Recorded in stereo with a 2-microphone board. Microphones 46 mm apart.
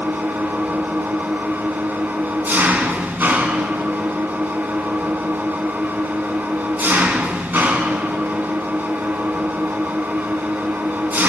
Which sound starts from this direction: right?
An engine running, at 0.0 s.